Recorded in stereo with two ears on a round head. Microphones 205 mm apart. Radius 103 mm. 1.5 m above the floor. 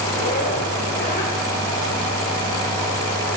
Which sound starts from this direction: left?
A zipper, at 0.1 s.